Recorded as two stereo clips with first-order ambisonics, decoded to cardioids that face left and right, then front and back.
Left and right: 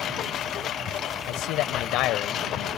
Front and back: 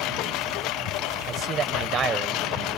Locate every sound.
0.0 s a lawn mower: 35° left
1.3 s a man speaking: 120° left